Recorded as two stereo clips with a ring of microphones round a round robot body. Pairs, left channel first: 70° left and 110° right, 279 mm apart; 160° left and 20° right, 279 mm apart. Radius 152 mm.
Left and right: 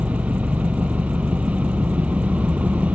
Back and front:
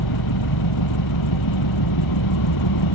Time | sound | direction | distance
0.0 | an engine running | 160° left | ?